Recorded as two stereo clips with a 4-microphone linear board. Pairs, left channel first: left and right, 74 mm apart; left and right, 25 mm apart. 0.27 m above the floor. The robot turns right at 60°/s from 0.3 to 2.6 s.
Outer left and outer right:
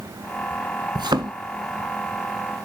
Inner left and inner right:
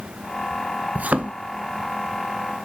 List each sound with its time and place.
0.9 s a thud: 85° right, 0.5 m; by 1.3 s 70° right (ahead or behind), 0.5 m